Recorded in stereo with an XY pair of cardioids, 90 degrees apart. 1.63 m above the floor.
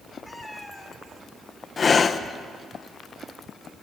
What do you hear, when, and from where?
0.2 s a cat meowing: 10° left, 3 m
1.8 s breathing: 40° left, 1.1 m